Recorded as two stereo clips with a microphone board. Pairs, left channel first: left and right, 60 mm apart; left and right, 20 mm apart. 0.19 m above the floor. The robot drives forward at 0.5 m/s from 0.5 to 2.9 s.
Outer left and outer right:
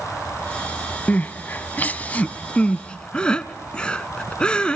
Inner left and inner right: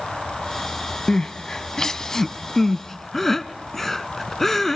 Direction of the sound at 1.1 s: 25° left (ahead or behind).